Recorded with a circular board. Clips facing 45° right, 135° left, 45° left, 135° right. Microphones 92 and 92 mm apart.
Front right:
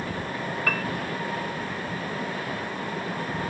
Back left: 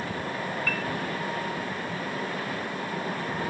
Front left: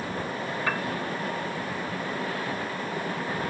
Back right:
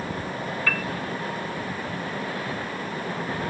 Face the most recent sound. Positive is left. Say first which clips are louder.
# front right 3 dB, even
turn(degrees=-25)